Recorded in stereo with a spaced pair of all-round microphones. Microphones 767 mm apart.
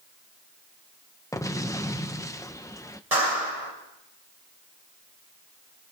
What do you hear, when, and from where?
1.3 s an explosion: 5° left (ahead or behind), 0.9 m
3.1 s a clap: 50° right (ahead or behind), 7 m